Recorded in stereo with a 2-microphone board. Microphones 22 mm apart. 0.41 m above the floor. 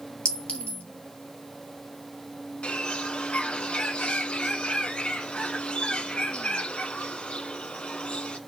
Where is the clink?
65° left (ahead or behind), 2 m.